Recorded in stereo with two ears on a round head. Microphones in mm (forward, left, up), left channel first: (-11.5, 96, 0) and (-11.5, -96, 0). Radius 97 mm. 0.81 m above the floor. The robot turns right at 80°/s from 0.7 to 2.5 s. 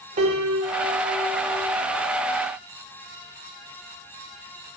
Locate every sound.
0.2 s a piano: 35° right, 3 m; by 1.8 s 50° left, 3 m